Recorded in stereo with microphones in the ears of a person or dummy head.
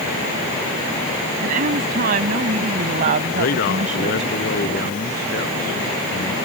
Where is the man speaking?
50° left (ahead or behind).